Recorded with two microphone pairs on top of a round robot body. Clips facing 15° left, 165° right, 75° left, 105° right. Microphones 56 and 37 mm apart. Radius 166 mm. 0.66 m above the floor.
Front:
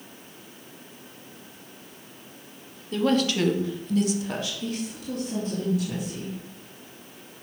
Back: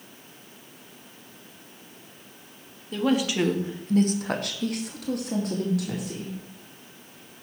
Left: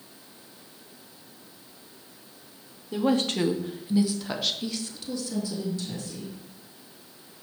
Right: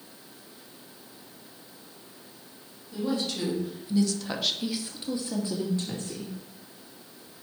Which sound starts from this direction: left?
A woman speaking, at 2.9 s.